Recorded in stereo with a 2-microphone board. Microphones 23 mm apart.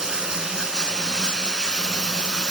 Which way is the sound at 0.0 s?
25° right (ahead or behind).